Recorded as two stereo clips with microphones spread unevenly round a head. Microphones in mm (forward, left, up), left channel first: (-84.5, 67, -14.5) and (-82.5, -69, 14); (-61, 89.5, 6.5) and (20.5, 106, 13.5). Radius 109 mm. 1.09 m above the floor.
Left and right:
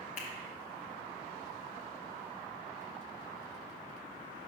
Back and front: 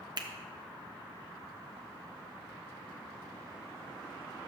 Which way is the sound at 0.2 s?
50° left.